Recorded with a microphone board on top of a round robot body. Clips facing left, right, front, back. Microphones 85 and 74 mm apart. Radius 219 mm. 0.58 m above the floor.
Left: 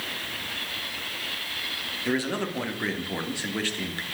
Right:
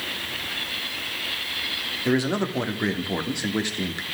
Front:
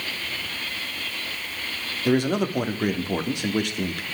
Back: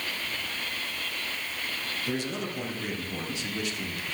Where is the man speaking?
20° right, 1.9 m.